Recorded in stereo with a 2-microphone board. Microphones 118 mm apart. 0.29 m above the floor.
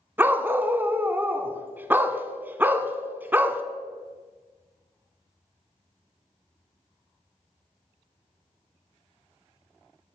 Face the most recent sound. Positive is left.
turn(degrees=-15)  # may be behind; listen again after turning